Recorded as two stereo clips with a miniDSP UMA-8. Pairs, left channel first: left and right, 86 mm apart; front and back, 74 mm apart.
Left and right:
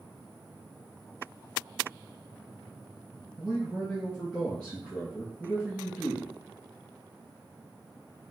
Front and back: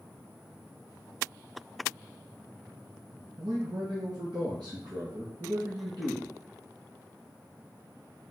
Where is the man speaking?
175° right, 2.5 m.